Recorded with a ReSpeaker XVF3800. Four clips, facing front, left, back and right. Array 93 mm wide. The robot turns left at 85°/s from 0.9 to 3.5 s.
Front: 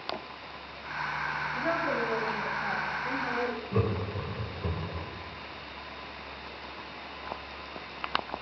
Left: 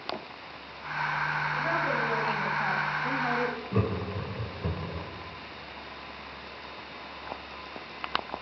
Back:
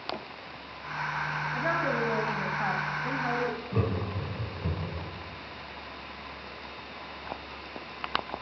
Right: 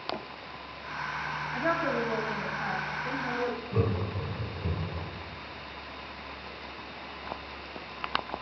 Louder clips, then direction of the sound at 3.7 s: Even, front 1 dB; 50° left.